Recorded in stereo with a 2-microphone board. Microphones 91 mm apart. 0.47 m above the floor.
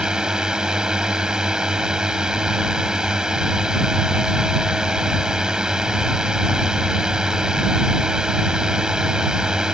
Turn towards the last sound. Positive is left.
turn(degrees=-10)  # may be behind; listen again after turning